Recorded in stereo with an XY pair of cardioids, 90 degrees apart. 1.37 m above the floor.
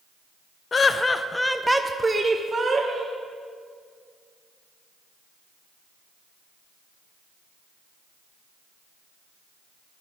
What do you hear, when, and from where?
0.7 s laughter: 45° left, 0.7 m; by 3.2 s 45° right, 1.2 m